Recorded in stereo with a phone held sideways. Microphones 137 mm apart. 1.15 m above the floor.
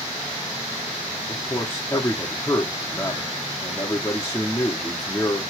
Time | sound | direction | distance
1.3 | a man speaking | 15° left (ahead or behind) | 0.8 m